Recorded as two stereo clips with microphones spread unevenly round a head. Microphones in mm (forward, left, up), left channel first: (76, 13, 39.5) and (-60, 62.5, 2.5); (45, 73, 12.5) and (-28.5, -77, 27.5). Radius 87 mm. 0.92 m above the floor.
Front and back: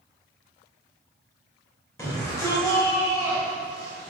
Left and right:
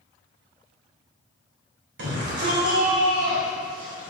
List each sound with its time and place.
2.0 s a shout: 95° right, 3.5 m; by 4.1 s 90° right, 5 m